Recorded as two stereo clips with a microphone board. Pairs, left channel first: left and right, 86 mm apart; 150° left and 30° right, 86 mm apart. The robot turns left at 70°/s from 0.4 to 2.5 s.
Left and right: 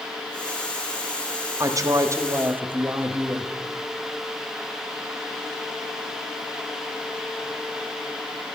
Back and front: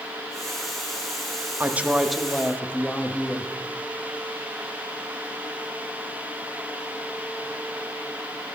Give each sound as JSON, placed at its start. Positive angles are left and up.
{"t": 1.6, "sound": "a woman speaking", "azimuth_deg": -85, "distance_m": 0.9}